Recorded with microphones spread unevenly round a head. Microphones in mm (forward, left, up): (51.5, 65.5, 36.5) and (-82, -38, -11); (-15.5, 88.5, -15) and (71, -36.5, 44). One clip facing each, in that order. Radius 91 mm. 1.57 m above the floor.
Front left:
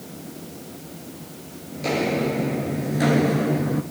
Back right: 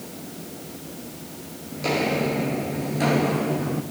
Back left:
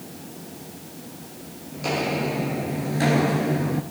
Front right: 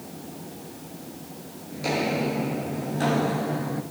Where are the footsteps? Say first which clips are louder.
Front left 1 dB, even; 25° right, 1.8 m; by 3.8 s 50° left, 1.7 m.